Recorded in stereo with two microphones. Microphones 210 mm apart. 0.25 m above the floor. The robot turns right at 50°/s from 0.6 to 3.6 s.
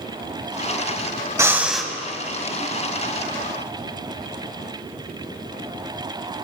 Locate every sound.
1.4 s breathing: 15° right (ahead or behind), 0.7 m; by 1.9 s 5° left (ahead or behind), 0.7 m